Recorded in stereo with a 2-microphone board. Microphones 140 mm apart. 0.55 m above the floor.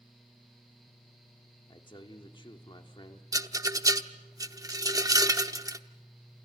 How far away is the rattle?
About 0.8 m.